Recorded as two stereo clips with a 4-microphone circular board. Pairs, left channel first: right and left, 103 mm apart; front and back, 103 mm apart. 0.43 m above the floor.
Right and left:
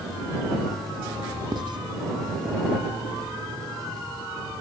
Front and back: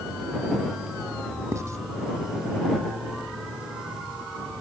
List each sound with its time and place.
1.5 s writing: 120° left